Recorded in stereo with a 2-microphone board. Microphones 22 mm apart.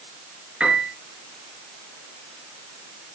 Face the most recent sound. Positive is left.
turn(degrees=-70)  # may be behind; listen again after turning